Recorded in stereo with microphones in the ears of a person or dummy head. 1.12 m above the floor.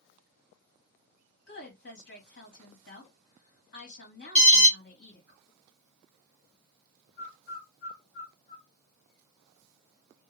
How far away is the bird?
About 1.3 m.